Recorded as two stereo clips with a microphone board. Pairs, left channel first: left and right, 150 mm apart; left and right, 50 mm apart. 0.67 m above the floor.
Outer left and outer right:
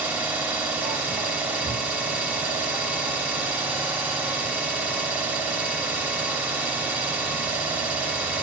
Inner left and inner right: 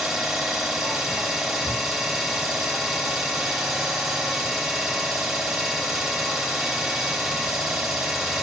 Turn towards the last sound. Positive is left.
turn(degrees=-10)  # may be behind; listen again after turning